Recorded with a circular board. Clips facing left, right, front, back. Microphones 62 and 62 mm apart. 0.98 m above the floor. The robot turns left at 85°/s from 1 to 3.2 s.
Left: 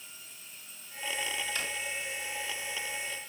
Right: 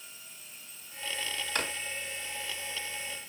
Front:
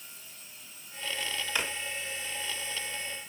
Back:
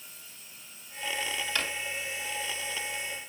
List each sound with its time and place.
1.6 s a drawer: 75° right, 1.1 m; by 1.7 s 90° right, 1.1 m